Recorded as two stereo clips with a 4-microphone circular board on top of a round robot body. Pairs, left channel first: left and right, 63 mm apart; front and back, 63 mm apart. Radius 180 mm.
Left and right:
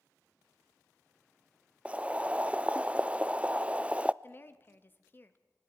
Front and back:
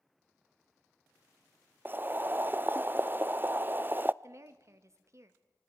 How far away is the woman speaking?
About 1.4 m.